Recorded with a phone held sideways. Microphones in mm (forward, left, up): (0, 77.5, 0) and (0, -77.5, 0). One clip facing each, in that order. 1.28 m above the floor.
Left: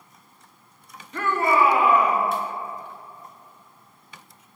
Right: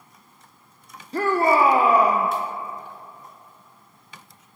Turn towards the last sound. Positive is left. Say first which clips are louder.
# right 3 dB
turn(degrees=-35)  # may be behind; listen again after turning